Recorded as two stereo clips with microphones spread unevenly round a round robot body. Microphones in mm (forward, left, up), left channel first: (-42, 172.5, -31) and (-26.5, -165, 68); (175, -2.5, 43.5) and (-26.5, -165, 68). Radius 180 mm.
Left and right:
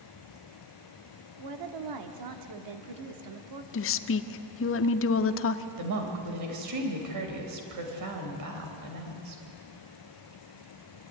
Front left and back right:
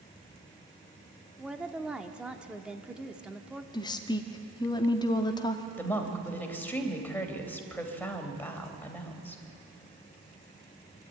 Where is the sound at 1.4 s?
50° right, 1.5 m.